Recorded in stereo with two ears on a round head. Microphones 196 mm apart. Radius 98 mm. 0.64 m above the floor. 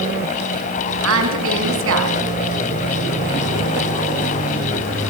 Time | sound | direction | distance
1.0 | a woman speaking | 65° right (ahead or behind) | 6.5 m